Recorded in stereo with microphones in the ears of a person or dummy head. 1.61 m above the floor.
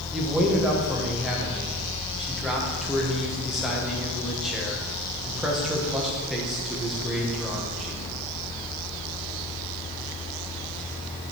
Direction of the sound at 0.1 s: Centre (ahead or behind).